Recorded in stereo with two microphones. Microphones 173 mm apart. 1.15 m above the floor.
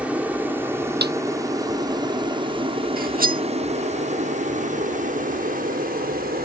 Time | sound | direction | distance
0.0 | an aircraft | 5° right (ahead or behind) | ?
1.0 | a snare drum | 70° right (ahead or behind) | ?
3.0 | cutlery clinking | 55° right (ahead or behind) | ?